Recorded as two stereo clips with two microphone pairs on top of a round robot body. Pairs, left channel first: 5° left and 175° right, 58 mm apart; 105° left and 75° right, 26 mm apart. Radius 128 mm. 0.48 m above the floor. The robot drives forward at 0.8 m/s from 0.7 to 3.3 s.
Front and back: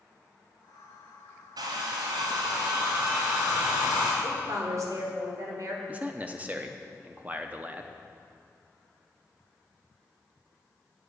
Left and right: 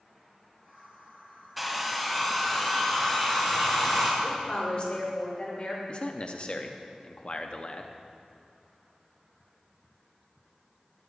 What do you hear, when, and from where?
1.6 s a hair dryer: 170° right, 0.7 m; by 4.1 s 175° right, 2 m
4.2 s a woman speaking: 150° left, 2.5 m
5.9 s a man speaking: 110° left, 0.8 m